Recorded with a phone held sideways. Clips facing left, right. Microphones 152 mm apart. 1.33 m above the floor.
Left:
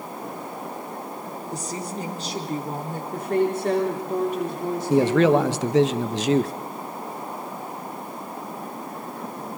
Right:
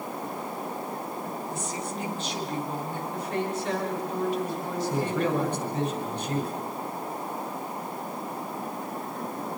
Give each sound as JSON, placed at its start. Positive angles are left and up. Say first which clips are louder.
{"t": 1.5, "sound": "a woman speaking", "louder": "left 2 dB", "side_deg": 35, "distance_m": 4.0}
{"t": 3.1, "sound": "a woman speaking", "louder": "left 9 dB", "side_deg": 50, "distance_m": 3.5}
{"t": 4.9, "sound": "a man speaking", "louder": "left 11 dB", "side_deg": 75, "distance_m": 1.2}